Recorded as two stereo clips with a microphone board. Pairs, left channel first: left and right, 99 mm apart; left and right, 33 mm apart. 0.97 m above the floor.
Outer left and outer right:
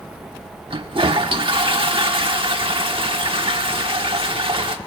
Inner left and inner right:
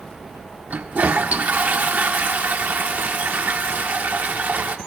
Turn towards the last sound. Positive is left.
turn(degrees=-60)  # may be behind; listen again after turning